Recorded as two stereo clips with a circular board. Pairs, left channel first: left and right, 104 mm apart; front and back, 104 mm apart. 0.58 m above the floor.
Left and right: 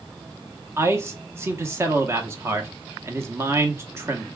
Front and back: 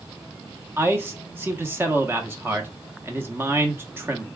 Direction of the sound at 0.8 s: 130° right.